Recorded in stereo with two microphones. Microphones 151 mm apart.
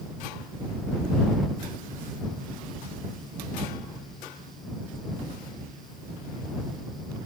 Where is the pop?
I don't hear a pop.